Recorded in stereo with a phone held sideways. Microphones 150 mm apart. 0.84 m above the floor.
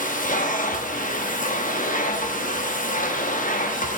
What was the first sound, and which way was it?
A machine running, 65° left (ahead or behind).